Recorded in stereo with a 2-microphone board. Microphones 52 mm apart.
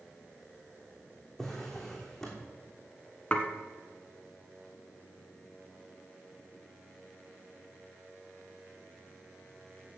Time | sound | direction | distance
1.4 | a drawer | 5° left (ahead or behind) | 3 m
3.3 | dishes clattering | 25° left (ahead or behind) | 1.3 m